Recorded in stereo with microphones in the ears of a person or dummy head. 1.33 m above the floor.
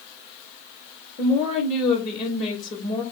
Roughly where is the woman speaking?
Left.